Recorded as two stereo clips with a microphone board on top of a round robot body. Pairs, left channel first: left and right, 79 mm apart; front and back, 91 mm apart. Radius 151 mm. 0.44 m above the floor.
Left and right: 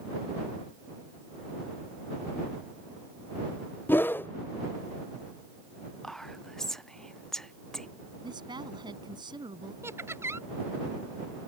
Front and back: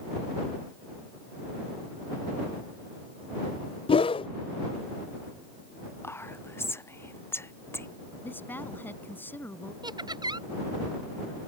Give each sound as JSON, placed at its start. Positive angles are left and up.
{"t": 3.9, "sound": "a whoosh", "azimuth_deg": 25}
{"t": 6.0, "sound": "whispering", "azimuth_deg": 10}
{"t": 8.2, "sound": "a woman speaking", "azimuth_deg": -70}
{"t": 9.8, "sound": "laughter", "azimuth_deg": -145}